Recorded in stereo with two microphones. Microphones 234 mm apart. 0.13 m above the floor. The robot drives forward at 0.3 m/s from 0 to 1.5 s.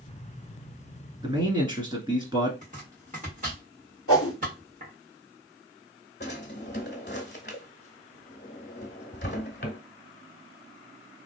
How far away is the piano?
I don't hear a piano.